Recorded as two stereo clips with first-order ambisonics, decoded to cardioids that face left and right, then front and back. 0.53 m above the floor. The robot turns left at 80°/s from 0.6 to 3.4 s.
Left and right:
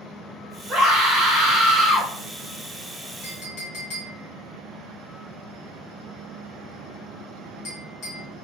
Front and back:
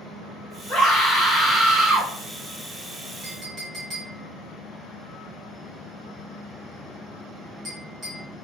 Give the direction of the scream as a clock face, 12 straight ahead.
1 o'clock.